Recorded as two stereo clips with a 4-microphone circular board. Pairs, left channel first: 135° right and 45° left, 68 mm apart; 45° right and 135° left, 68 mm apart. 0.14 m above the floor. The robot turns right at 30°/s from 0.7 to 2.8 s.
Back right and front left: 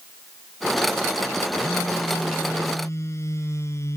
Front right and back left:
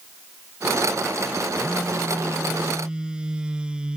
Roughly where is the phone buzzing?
Behind.